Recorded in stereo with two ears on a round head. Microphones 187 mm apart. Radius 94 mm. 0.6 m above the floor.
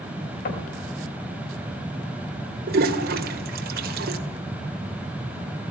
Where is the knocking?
45° left (ahead or behind), 3.5 m.